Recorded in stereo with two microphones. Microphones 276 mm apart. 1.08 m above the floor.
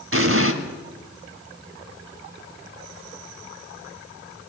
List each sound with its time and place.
0.1 s an explosion: 50° right (ahead or behind), 1.8 m